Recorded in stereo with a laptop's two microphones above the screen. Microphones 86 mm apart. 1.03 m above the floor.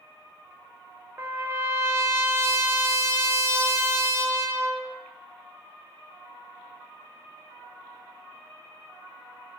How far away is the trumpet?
About 0.5 m.